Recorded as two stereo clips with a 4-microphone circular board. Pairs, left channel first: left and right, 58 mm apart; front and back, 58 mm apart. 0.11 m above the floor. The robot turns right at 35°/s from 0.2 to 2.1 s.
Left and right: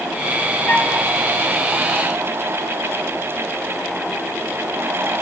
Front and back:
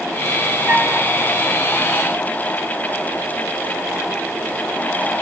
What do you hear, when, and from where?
0.7 s a flute: 135° left, 3 m; by 1.0 s 145° left, 3 m